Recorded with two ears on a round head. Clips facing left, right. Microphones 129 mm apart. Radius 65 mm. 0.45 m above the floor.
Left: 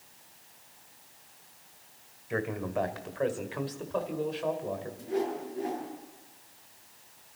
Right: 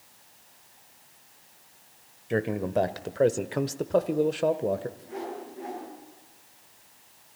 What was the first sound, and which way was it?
A man speaking, 35° right (ahead or behind).